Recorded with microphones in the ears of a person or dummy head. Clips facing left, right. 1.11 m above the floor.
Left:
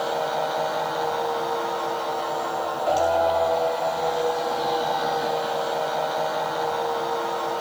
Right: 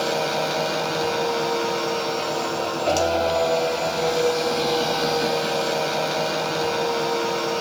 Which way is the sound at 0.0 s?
40° right (ahead or behind).